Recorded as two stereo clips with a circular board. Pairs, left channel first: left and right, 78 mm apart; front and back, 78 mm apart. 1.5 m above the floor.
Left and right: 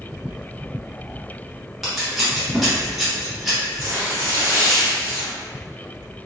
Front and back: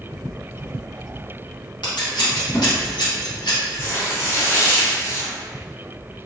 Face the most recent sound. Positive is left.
turn(degrees=-35)